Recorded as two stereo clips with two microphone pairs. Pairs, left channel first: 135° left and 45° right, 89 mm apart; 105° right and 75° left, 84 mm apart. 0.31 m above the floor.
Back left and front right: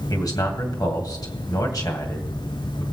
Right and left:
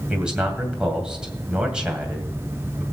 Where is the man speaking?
150° left, 2 m.